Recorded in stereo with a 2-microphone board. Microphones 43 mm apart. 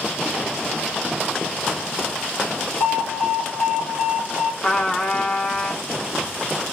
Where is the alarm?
40° right (ahead or behind), 2.5 m.